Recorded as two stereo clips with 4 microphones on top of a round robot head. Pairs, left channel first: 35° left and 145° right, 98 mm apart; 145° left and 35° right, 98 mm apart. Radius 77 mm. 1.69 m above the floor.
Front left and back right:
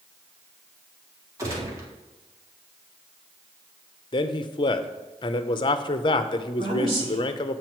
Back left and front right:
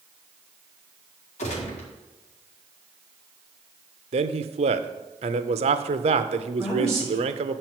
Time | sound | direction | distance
1.4 | a gunshot | 155° left | 1.8 m
4.1 | a man speaking | 10° right | 0.6 m
6.6 | a woman speaking | 130° right | 3 m